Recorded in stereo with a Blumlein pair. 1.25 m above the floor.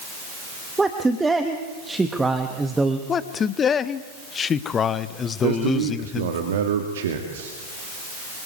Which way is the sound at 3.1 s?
20° left.